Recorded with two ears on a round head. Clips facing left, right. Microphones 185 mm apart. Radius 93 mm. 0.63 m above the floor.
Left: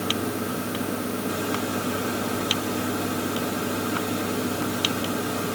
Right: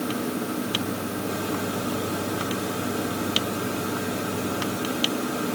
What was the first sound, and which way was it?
Only background noise.